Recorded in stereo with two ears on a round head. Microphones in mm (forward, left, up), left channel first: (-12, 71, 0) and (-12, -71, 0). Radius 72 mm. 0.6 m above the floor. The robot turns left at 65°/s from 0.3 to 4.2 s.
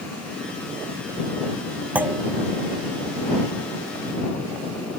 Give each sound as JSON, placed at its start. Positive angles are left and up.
{"t": 1.9, "sound": "a clunk", "side_deg": -10}